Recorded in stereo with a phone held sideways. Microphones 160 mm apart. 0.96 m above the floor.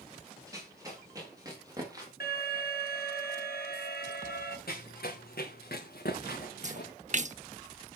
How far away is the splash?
About 0.7 m.